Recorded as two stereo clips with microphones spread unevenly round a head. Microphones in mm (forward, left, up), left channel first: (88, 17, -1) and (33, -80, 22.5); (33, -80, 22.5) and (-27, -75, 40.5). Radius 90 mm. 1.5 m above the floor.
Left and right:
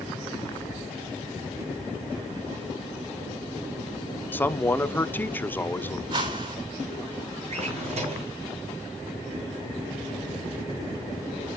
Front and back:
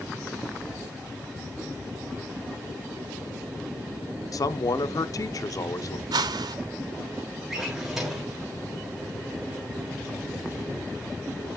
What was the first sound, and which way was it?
A man speaking, 10° right.